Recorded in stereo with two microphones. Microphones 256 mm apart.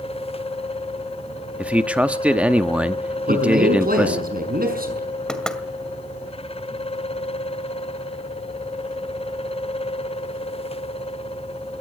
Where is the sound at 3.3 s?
35° right (ahead or behind), 6 m.